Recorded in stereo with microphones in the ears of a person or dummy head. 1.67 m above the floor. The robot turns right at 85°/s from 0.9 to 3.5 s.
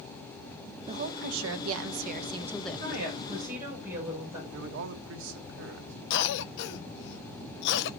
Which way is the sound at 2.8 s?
75° right.